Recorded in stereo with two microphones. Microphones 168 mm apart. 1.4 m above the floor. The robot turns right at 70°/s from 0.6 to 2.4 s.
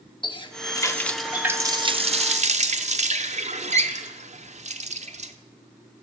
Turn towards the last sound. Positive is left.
turn(degrees=-100)